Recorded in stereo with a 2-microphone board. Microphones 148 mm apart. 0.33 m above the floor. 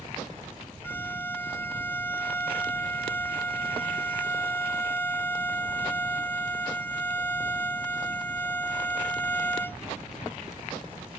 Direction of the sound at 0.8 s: 15° left (ahead or behind).